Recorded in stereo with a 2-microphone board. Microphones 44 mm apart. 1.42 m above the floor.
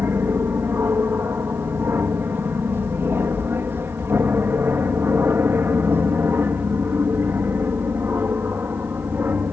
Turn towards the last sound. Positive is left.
turn(degrees=-50)  # may be behind; listen again after turning